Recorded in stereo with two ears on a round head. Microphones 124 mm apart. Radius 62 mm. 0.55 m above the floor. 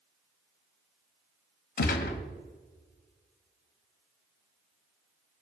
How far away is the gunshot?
About 1.6 m.